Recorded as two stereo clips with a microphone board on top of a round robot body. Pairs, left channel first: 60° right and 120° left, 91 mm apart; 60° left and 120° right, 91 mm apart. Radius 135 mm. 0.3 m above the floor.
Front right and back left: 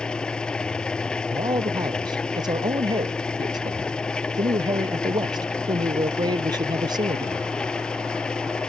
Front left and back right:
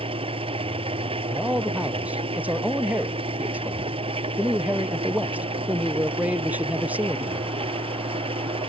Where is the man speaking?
165° left.